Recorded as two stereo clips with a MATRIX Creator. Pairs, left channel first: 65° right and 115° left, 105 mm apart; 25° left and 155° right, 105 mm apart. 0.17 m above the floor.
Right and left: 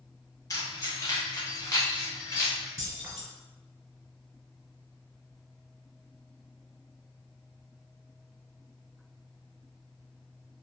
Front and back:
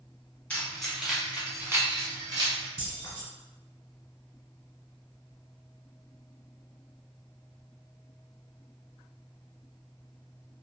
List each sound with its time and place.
0.5 s keys jangling: 45° right, 1.0 m; by 2.7 s 130° right, 1.3 m
2.8 s keys jangling: 60° left, 1.4 m